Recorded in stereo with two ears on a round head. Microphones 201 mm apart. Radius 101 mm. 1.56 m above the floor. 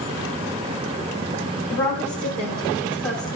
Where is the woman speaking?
5° left (ahead or behind), 4.5 m.